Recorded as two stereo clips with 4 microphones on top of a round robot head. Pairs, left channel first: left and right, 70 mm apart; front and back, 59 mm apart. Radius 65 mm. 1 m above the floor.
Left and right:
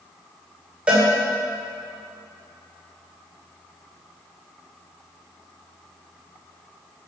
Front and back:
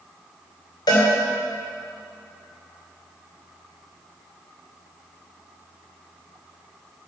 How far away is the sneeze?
I don't hear a sneeze.